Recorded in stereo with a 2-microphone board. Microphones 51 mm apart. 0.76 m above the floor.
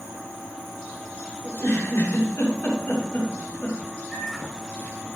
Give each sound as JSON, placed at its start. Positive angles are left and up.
{"t": 1.4, "sound": "a giggle", "side_deg": 60, "distance_m": 2.5}
{"t": 4.1, "sound": "a microwave", "side_deg": 0, "distance_m": 2.5}